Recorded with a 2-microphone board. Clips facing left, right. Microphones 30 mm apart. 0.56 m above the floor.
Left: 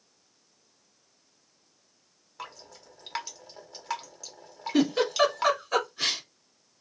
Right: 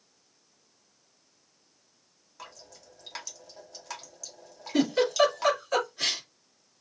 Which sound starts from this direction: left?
Dripping, at 2.4 s.